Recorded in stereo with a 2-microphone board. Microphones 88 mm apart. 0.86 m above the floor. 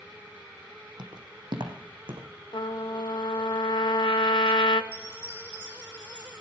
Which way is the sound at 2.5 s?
65° left (ahead or behind).